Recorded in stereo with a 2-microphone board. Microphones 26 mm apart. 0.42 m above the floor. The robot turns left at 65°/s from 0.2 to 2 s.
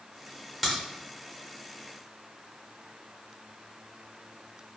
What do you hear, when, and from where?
0.6 s a crack: centre (ahead or behind), 1.2 m; by 0.8 s 5° right (ahead or behind), 1.2 m